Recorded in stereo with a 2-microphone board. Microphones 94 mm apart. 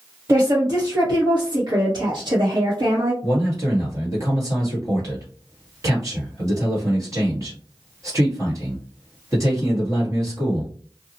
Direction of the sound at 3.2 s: 40° right (ahead or behind).